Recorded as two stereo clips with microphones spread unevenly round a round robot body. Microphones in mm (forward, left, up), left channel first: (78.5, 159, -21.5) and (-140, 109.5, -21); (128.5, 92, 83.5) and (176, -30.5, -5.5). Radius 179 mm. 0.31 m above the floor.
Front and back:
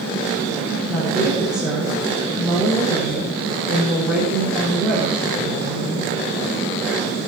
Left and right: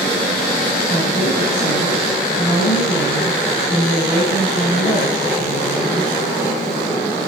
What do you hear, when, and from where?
0.9 s a woman speaking: 105° left, 6 m